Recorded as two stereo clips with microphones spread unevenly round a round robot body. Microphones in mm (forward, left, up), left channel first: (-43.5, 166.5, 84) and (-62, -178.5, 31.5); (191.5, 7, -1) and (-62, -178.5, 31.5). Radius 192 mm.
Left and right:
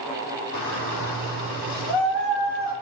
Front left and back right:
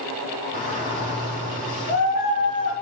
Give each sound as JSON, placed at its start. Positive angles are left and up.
{"t": 0.5, "sound": "a shout", "azimuth_deg": 95, "distance_m": 1.8}